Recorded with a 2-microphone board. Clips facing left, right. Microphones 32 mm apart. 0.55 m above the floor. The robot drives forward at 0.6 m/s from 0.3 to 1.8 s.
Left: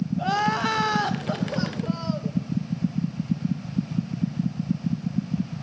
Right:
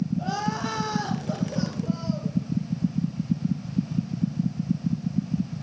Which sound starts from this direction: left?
Crying, at 0.2 s.